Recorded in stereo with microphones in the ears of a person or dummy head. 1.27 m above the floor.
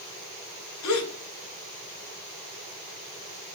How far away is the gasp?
About 2 m.